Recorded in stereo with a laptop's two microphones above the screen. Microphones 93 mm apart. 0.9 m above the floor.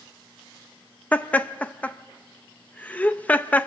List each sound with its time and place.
1.1 s laughter: 15° left (ahead or behind), 0.6 m